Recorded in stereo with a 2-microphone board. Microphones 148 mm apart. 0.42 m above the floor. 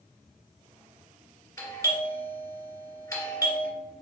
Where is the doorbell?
20° left (ahead or behind), 1.6 m.